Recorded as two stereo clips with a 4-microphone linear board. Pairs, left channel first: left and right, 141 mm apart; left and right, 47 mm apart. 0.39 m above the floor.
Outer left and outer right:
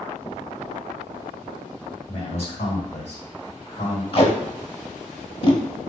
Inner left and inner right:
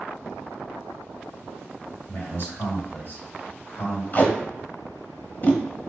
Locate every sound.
2.1 s a man speaking: 55° left (ahead or behind), 1.9 m
4.1 s tape being pulled: 40° left (ahead or behind), 0.7 m